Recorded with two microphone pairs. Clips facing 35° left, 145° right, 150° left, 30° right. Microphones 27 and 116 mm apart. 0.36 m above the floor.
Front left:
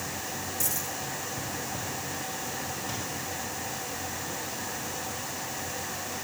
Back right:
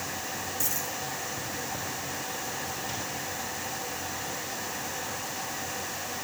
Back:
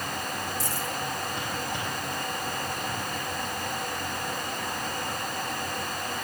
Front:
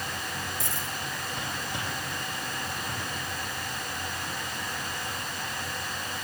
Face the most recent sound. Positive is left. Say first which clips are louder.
# even, back 3 dB
turn(degrees=-65)